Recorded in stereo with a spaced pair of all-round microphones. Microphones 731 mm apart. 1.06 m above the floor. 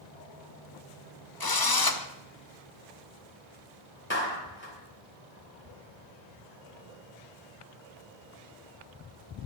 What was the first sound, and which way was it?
A drill, 30° left (ahead or behind).